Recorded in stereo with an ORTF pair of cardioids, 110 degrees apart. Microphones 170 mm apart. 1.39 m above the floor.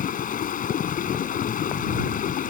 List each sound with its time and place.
0.0 s running water: 50° left